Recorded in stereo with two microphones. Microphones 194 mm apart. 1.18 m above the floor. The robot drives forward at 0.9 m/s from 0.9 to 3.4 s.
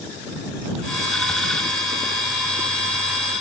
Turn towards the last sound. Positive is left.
No sound to turn to.